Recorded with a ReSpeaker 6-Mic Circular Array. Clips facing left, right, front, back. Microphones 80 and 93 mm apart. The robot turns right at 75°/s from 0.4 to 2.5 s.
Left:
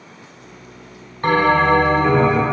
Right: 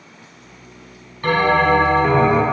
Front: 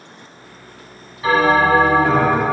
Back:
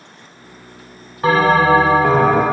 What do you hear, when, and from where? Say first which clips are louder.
1.2 s a bell: left 1 dB, back 1 dB; 145° left, 0.6 m; by 2.4 s 125° right, 0.6 m